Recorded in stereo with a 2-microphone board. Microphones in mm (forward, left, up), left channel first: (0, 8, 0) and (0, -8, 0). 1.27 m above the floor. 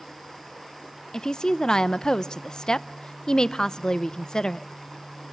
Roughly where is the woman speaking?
Left.